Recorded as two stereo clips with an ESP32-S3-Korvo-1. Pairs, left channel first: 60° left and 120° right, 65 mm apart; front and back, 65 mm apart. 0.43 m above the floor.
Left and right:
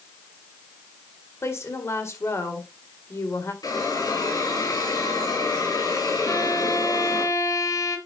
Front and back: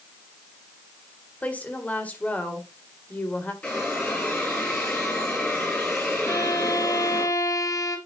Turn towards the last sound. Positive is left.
turn(degrees=25)